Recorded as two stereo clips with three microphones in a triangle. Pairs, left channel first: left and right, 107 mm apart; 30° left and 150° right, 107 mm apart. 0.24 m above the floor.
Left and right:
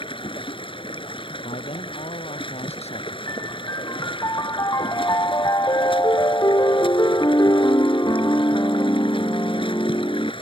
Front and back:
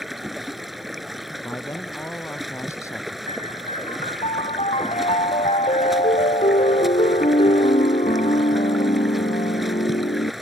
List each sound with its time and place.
0.0 s running water: 120° left
1.4 s a man speaking: 95° left
3.3 s a piano: 35° left